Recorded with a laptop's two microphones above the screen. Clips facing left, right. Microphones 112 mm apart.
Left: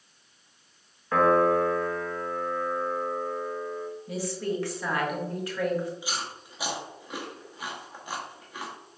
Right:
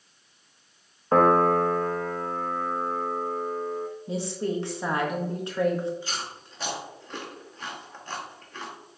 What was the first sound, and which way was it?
A piano, 35° right (ahead or behind).